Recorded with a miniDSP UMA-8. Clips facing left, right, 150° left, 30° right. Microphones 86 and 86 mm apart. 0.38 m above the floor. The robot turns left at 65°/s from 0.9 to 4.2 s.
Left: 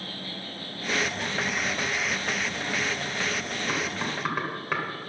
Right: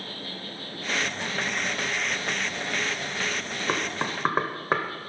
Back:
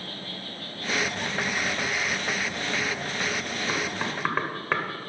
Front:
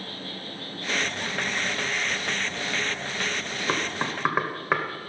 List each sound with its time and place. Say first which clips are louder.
0.0 s an insect: even, front 1 dB; 20° right, 5.5 m; by 5.1 s 125° left, 5.5 m
3.7 s knocking: right 3 dB, front 3 dB; 65° right, 1.3 m; by 5.1 s 100° right, 1.3 m